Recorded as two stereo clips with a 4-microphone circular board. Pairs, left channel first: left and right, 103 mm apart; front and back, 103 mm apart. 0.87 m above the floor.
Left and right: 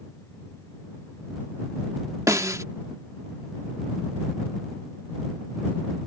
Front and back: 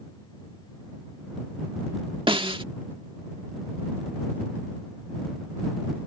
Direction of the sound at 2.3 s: 150° right.